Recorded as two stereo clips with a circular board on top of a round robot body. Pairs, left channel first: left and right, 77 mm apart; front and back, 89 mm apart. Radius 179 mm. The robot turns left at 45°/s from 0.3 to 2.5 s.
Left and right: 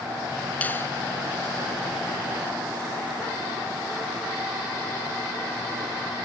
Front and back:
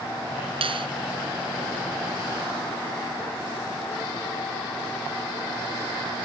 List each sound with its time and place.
0.6 s a finger snap: 160° left; by 0.9 s 150° left